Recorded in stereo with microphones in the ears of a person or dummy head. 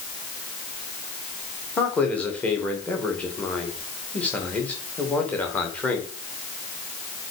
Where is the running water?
No running water in this recording.